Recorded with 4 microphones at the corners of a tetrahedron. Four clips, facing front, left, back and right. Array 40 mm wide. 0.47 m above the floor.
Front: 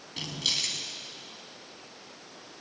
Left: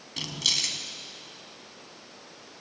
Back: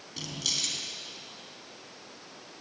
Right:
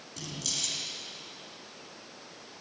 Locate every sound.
0.2 s keys jangling: 75° left, 3 m